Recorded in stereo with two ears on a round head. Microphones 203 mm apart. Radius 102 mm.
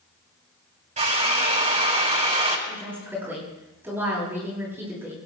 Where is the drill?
30° right (ahead or behind), 3.5 m.